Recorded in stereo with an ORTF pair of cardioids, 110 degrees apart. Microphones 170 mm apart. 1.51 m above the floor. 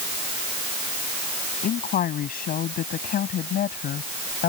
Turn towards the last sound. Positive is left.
turn(degrees=65)